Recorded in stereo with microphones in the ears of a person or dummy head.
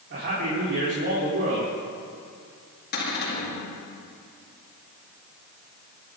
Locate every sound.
0.1 s a man speaking: 55° right (ahead or behind), 4 m
2.9 s a cupboard door: 55° left (ahead or behind), 3.5 m